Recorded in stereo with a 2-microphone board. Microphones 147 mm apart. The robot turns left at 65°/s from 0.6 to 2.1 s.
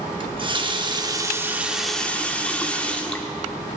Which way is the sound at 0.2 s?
100° right.